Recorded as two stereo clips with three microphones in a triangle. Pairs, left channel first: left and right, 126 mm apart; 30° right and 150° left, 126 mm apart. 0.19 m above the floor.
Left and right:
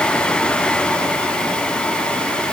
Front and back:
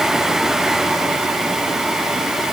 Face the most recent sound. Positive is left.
No sound to turn to.